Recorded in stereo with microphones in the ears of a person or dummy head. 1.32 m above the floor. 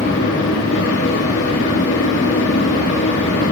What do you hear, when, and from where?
0.0 s a fan: 65° left (ahead or behind), 3 m